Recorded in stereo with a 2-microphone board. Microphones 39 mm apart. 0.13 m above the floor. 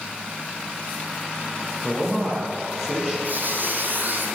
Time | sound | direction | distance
1.8 | a man speaking | 5° left (ahead or behind) | 3.5 m
3.2 | a squeak | 55° right (ahead or behind) | 1.1 m